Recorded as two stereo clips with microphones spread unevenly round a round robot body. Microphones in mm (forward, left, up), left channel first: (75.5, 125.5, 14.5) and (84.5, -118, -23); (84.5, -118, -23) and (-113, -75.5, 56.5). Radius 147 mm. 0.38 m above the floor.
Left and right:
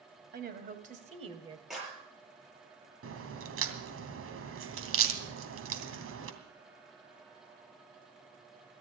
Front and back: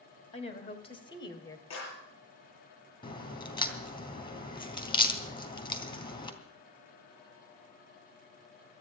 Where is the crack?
65° right, 2.5 m.